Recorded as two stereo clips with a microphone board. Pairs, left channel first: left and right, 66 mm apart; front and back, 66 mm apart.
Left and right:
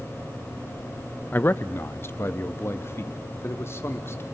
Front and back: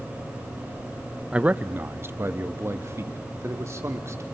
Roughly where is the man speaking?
Behind left.